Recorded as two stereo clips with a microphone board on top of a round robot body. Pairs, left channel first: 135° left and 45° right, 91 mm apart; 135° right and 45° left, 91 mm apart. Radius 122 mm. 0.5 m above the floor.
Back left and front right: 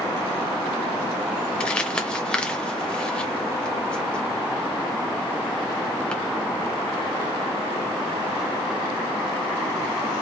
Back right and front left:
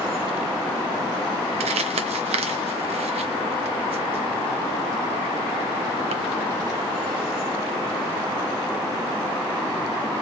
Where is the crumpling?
55° left, 0.8 m.